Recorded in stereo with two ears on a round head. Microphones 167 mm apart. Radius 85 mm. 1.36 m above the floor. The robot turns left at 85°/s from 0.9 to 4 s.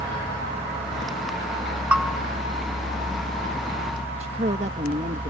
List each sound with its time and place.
1.9 s a bell: 5° right (ahead or behind); by 2.2 s 15° left (ahead or behind)
4.2 s a woman speaking: 35° right (ahead or behind)